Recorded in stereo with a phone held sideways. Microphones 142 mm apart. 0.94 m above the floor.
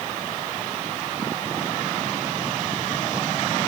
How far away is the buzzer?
No buzzer in this recording.